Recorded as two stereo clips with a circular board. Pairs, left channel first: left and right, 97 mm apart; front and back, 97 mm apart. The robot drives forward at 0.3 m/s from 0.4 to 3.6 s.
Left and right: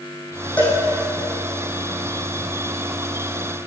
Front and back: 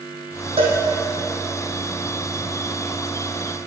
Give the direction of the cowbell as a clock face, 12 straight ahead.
6 o'clock.